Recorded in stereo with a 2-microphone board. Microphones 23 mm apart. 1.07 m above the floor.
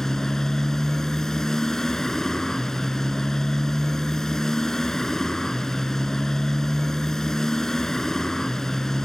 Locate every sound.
0.0 s a motorcycle: 25° left (ahead or behind)